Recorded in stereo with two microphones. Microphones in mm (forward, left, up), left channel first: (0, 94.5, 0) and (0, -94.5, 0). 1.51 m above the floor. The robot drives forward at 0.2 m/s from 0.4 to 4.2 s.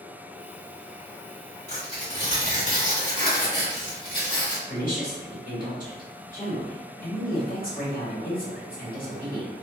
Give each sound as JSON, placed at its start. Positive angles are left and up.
{"t": 1.7, "sound": "tearing paper", "side_deg": 40, "distance_m": 1.7}
{"t": 4.7, "sound": "a woman speaking", "side_deg": 50, "distance_m": 1.4}